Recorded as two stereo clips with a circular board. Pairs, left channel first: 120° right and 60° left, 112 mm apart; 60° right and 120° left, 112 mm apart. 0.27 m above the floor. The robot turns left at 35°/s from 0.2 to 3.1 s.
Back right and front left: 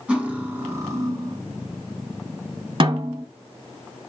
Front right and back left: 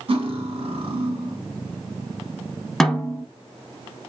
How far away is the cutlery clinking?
About 1.4 m.